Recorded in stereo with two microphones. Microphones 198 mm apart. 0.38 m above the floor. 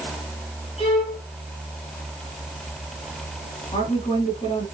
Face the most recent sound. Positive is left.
turn(degrees=35)  # may be behind; listen again after turning